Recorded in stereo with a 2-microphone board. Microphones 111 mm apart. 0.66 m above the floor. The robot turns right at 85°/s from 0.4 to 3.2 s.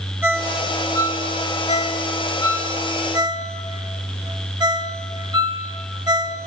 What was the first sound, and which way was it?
A ringtone, 20° right (ahead or behind).